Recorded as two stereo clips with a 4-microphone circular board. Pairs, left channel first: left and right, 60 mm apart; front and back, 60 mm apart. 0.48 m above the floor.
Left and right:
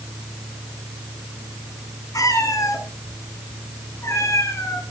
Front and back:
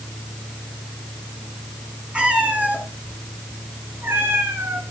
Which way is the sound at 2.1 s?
105° left.